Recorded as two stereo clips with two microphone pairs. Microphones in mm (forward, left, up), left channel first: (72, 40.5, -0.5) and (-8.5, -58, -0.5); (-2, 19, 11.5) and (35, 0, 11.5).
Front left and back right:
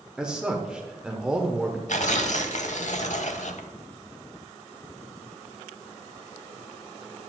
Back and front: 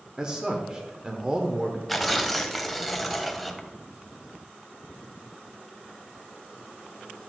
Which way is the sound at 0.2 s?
55° right.